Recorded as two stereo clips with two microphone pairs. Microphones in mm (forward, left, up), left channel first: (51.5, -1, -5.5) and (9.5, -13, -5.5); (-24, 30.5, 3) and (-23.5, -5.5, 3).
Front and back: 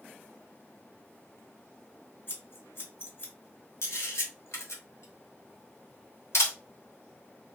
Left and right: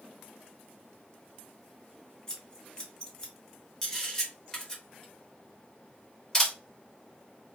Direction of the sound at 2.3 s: 25° left.